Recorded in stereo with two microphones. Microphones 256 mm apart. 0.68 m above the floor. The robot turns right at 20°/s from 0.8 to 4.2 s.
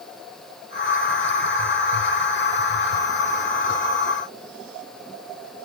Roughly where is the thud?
I don't hear a thud.